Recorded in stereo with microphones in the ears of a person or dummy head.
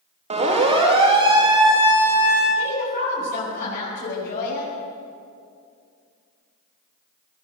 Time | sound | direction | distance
0.3 | a siren | 35° right (ahead or behind) | 3.5 m
2.5 | a woman speaking | 50° left (ahead or behind) | 7 m